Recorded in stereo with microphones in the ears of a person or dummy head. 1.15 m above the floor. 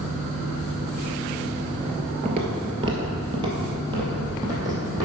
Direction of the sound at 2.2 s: 30° right (ahead or behind).